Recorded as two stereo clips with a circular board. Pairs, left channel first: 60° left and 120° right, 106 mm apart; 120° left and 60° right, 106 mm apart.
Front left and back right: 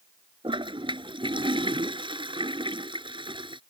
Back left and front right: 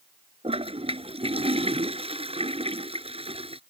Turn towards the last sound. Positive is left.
turn(degrees=-80)